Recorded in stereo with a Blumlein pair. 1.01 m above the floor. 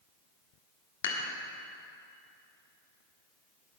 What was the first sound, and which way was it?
Dishes clattering, 60° left.